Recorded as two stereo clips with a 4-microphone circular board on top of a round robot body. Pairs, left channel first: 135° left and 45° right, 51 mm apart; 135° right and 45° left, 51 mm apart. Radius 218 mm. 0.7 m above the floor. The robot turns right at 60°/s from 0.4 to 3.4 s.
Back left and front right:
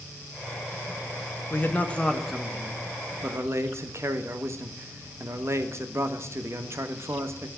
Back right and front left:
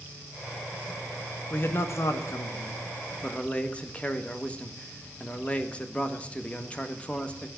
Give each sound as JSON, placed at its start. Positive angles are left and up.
{"t": 1.5, "sound": "a man speaking", "azimuth_deg": 175, "distance_m": 1.6}